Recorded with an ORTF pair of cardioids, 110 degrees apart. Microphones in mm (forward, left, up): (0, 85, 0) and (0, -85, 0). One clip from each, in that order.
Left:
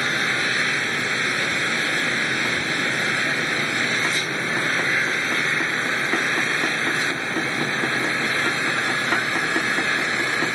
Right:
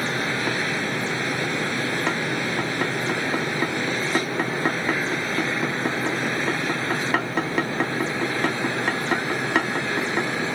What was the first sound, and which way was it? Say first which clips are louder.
An engine running: left 3 dB; 50° left.